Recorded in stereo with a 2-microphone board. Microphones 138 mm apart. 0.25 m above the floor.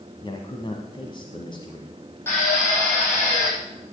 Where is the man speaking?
35° left (ahead or behind), 1.6 m.